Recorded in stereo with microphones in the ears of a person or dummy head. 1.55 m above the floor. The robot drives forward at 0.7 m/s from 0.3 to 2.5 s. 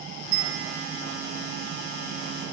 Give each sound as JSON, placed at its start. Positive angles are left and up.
{"t": 0.3, "sound": "a bell", "side_deg": -70, "distance_m": 1.8}